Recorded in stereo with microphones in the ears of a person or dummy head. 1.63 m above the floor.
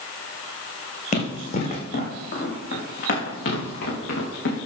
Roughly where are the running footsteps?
Left.